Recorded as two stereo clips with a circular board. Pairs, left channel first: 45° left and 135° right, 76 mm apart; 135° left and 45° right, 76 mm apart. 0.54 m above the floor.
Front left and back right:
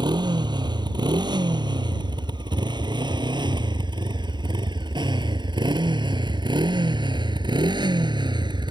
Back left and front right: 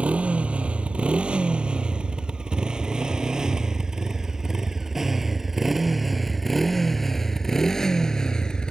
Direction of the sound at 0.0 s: 120° right.